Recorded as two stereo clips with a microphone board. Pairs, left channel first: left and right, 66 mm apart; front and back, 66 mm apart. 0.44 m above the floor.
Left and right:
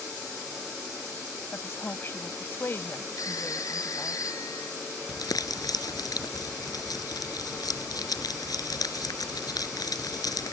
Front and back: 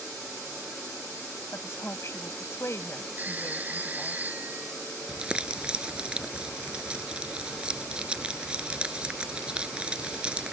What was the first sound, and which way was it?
A woman speaking, 40° left.